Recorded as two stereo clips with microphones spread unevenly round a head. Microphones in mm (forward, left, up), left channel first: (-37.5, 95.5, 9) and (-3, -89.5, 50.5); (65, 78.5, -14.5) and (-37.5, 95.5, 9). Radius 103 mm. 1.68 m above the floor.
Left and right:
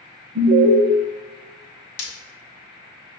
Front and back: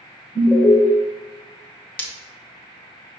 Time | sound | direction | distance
0.3 | an alarm | 80° right | 0.7 m
2.0 | breaking glass | 80° left | 1.1 m